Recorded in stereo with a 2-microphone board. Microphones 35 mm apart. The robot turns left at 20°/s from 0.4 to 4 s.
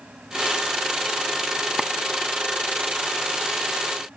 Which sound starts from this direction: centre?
A clap, at 1.8 s.